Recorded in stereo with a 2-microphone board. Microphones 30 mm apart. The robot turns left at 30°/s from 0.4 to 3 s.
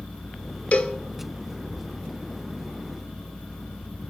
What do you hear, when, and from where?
0.7 s a cowbell: 50° left (ahead or behind), 0.8 m; by 0.9 s 60° left (ahead or behind), 0.8 m